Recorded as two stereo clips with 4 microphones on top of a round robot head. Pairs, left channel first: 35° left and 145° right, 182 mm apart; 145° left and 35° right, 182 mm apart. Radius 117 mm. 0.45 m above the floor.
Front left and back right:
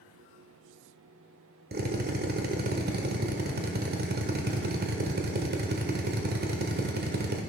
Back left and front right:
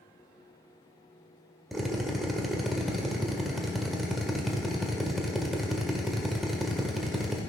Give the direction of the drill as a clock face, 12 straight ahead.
4 o'clock.